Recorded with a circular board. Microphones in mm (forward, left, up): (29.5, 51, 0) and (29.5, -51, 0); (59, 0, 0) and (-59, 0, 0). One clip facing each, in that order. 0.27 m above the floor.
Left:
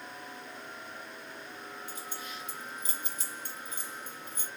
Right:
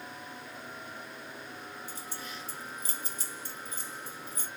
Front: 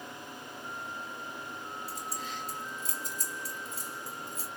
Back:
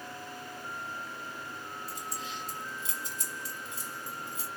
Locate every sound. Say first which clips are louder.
1.9 s keys jangling: even, even; 40° right, 1.4 m